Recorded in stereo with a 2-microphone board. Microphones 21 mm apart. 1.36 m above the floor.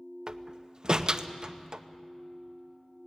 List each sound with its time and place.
0.3 s a door slam: 35° right (ahead or behind), 0.7 m